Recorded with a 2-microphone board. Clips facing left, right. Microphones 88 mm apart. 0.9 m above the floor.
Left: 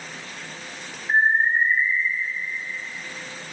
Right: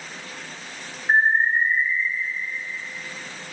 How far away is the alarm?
About 5 m.